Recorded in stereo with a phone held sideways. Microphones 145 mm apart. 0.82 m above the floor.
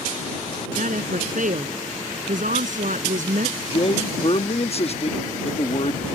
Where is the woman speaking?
60° right (ahead or behind).